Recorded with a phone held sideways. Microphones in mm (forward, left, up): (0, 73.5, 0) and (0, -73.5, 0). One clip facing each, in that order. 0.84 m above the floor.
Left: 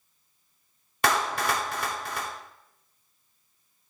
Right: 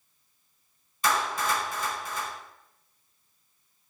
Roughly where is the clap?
Left.